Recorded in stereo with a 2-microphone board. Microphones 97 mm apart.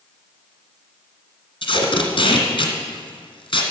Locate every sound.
1.6 s tape being pulled: 60° left (ahead or behind), 1.9 m